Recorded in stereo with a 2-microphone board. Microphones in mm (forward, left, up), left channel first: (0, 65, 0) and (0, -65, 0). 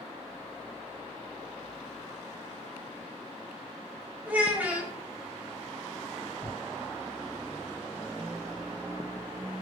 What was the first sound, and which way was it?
A child speaking, 10° right (ahead or behind).